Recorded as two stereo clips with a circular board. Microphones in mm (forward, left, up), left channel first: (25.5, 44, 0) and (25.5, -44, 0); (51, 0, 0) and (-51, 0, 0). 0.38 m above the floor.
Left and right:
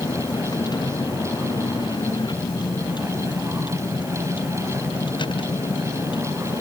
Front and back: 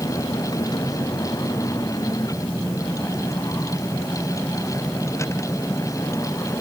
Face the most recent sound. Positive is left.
turn(degrees=65)